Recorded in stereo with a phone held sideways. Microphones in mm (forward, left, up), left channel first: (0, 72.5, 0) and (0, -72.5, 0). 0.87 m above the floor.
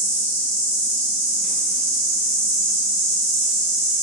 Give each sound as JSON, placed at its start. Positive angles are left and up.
{"t": 0.0, "sound": "an insect", "side_deg": 70, "distance_m": 1.4}